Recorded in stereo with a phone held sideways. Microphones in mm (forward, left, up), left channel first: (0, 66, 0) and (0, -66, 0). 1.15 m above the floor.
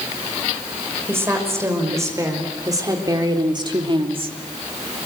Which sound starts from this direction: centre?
A woman speaking, at 1.1 s.